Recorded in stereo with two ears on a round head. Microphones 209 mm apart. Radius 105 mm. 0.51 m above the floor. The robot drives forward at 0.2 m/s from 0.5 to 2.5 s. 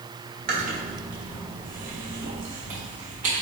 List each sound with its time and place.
0.5 s chewing: 40° right (ahead or behind), 1.2 m; by 3.4 s 35° right (ahead or behind), 1.4 m